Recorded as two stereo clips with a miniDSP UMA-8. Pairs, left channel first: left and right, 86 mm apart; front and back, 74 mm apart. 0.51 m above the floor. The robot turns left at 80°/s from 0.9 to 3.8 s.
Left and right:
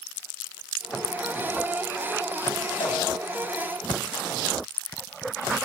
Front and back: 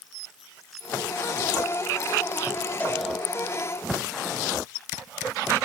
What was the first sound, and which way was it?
A cowbell, 70° left.